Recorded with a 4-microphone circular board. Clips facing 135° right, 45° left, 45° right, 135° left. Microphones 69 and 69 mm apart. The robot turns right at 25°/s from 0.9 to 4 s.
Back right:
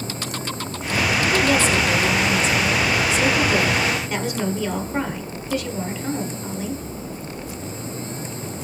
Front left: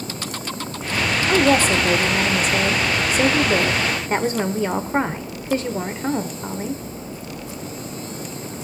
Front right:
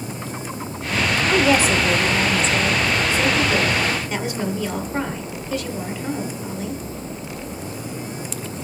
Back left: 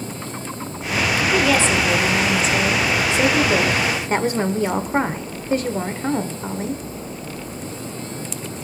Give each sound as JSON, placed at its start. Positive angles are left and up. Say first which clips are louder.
{"t": 1.3, "sound": "a woman speaking", "louder": "front left 4 dB, front right 1 dB", "azimuth_deg": 25, "distance_m": 1.3}